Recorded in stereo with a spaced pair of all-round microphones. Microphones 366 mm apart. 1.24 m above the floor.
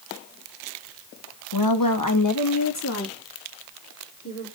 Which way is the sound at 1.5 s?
80° left.